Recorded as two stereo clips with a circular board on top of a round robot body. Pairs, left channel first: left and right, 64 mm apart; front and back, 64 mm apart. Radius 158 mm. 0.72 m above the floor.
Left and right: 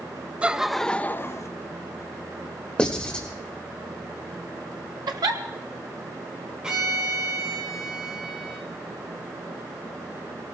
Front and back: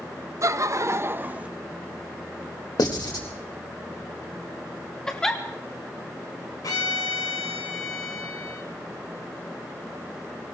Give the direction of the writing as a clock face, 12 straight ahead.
12 o'clock.